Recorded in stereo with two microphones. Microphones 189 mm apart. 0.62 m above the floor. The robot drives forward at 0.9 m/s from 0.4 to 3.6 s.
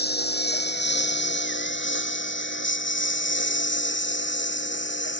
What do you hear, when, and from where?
0.0 s a lawn mower: 60° left (ahead or behind); by 5.2 s 75° left (ahead or behind)